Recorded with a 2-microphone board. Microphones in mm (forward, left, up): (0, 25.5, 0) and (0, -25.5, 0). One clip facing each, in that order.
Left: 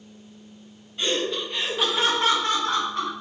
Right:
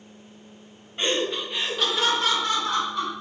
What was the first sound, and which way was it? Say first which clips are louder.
Laughter: even; 35° right (ahead or behind).